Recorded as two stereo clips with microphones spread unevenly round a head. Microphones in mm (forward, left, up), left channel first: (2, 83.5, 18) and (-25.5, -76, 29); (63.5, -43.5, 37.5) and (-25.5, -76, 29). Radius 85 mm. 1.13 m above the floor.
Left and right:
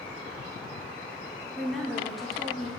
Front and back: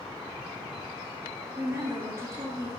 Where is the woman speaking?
165° left, 0.8 m.